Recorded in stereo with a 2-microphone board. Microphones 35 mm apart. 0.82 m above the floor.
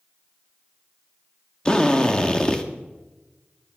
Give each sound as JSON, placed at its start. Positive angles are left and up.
{"t": 1.6, "sound": "a drill", "side_deg": 25, "distance_m": 1.5}